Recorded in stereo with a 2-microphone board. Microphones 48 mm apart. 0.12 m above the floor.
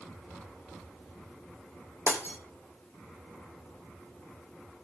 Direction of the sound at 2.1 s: 45° left (ahead or behind).